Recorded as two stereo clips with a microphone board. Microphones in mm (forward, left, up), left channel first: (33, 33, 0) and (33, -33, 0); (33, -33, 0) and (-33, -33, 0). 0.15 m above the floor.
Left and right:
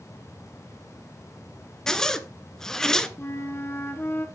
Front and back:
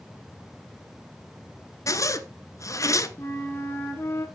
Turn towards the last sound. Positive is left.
turn(degrees=45)